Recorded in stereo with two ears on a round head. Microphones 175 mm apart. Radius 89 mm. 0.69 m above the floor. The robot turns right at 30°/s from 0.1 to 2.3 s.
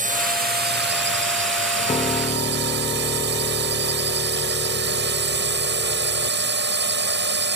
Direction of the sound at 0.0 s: 130° right.